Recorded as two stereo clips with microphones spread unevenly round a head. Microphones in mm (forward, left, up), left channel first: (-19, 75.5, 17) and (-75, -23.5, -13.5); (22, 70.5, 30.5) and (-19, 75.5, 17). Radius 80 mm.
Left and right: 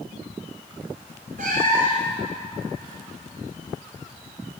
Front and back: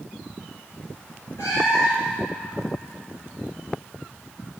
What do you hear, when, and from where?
1.4 s a cat meowing: 70° right, 4.5 m